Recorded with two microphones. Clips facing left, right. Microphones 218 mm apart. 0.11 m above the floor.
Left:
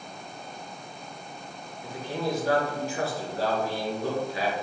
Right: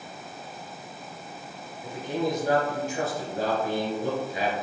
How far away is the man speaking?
About 1.5 m.